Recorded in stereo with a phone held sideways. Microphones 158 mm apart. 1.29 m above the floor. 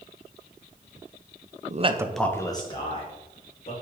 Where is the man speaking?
55° right (ahead or behind), 0.6 m; by 3.7 s 40° left (ahead or behind), 2 m.